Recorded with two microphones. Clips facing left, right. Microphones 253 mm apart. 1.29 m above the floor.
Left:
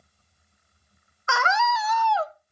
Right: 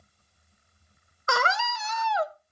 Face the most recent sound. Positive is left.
turn(degrees=-10)  # may be behind; listen again after turning